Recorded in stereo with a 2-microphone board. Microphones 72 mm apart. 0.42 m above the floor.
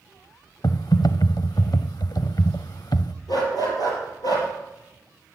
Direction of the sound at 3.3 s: 60° left (ahead or behind).